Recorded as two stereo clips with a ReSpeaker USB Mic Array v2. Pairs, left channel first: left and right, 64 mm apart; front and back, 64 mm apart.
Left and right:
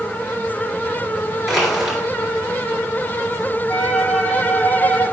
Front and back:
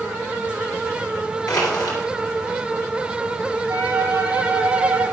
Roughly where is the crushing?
Ahead.